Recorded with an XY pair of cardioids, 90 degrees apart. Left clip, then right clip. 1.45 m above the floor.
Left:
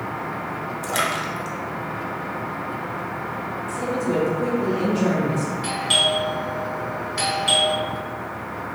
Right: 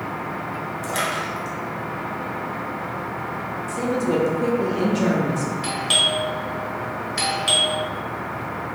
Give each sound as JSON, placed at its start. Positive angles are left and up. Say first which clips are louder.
{"t": 0.8, "sound": "a splash", "louder": "left 1 dB", "azimuth_deg": 30, "distance_m": 0.6}
{"t": 3.7, "sound": "a woman speaking", "louder": "right 2 dB", "azimuth_deg": -50, "distance_m": 0.9}
{"t": 5.6, "sound": "a doorbell", "louder": "even", "azimuth_deg": -35, "distance_m": 1.0}